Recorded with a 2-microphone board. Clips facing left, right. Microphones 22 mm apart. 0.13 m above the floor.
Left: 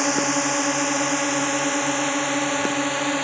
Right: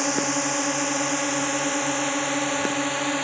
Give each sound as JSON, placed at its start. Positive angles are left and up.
{"t": 0.0, "sound": "a drone", "side_deg": 10}